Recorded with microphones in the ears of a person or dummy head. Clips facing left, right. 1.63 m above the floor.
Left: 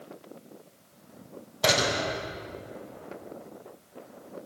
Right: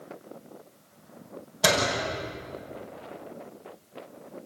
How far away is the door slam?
About 6.5 m.